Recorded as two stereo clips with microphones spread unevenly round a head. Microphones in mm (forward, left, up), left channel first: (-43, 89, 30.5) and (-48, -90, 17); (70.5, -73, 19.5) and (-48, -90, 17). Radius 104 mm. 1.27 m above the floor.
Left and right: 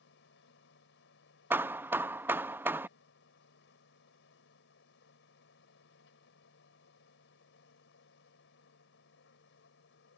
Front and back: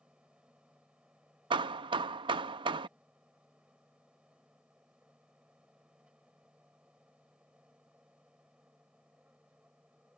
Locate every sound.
0.0 s a machine running: 100° left
1.5 s hammering: 170° right